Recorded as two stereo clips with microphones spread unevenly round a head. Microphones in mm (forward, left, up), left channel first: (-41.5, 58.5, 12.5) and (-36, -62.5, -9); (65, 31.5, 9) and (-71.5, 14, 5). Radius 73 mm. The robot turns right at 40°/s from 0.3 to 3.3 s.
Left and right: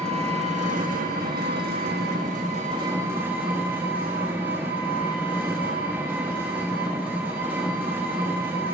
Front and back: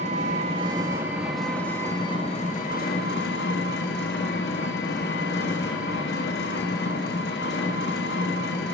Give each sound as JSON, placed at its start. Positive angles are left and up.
{"t": 0.0, "sound": "an engine running", "azimuth_deg": -125, "distance_m": 1.1}